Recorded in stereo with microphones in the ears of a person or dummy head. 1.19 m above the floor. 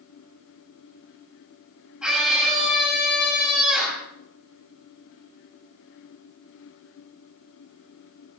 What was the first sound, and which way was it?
A scream, 10° right (ahead or behind).